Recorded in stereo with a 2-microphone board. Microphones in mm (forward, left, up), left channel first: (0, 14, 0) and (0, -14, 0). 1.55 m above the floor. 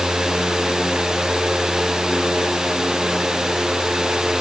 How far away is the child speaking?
I don't hear a child speaking.